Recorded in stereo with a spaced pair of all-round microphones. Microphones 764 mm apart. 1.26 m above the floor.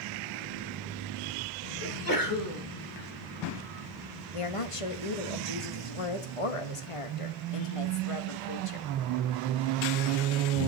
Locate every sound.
1.8 s a sneeze: 25° left (ahead or behind), 2.5 m
4.3 s a woman speaking: 45° left (ahead or behind), 1.4 m